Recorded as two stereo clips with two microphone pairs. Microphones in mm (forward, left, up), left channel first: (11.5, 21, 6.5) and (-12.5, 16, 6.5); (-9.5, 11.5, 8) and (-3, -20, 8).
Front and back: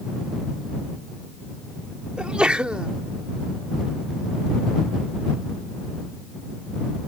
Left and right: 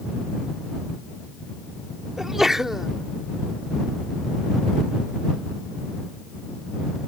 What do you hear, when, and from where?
2.2 s a sneeze: 150° right